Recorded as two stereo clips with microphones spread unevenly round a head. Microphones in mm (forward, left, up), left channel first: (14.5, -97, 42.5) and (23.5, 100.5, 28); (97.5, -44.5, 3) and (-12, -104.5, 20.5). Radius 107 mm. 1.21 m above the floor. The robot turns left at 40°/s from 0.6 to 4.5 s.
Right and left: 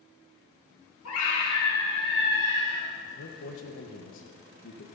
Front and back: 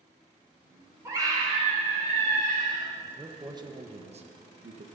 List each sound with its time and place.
1.1 s a scream: 85° right, 4 m; by 2.9 s 160° right, 4 m
3.0 s a man speaking: 70° right, 1.6 m; by 4.9 s 130° right, 1.6 m